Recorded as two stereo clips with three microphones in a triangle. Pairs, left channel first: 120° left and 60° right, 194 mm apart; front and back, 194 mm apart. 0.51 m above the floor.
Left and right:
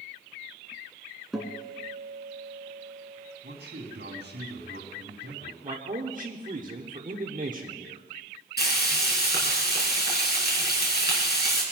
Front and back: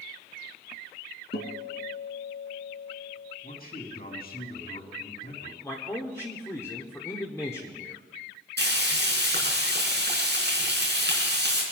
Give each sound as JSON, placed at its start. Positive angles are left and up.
{"t": 1.3, "sound": "a guitar", "azimuth_deg": 25, "distance_m": 2.0}
{"t": 3.4, "sound": "a man speaking", "azimuth_deg": -35, "distance_m": 4.0}
{"t": 5.6, "sound": "a man speaking", "azimuth_deg": -65, "distance_m": 1.4}
{"t": 8.6, "sound": "frying", "azimuth_deg": 155, "distance_m": 4.5}